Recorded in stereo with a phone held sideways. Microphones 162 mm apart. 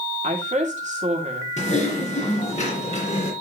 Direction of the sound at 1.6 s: 45° left (ahead or behind).